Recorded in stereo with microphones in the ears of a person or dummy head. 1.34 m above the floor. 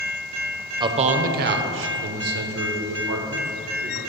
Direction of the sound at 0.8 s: 20° right (ahead or behind).